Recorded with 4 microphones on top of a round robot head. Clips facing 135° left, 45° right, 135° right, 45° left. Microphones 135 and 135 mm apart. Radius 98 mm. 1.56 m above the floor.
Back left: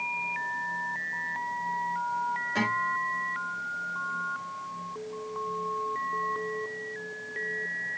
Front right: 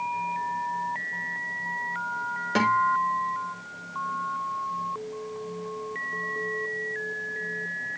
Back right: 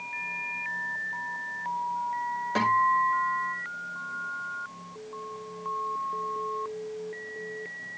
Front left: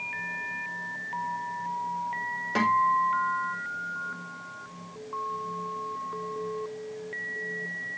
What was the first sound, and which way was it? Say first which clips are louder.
A guitar: front right 10 dB, front left 1 dB; 35° right.